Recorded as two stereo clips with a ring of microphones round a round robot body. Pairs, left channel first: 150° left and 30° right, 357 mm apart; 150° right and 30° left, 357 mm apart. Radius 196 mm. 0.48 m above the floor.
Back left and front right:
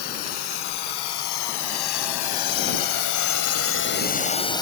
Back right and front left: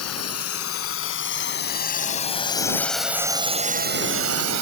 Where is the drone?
160° left; by 4.6 s 70° left.